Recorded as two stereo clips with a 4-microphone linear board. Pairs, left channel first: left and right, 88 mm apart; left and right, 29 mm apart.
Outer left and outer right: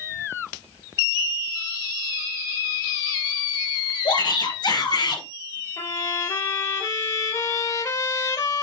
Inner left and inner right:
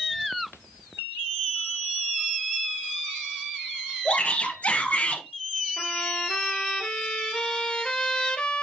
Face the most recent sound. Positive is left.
turn(degrees=40)  # may be behind; listen again after turning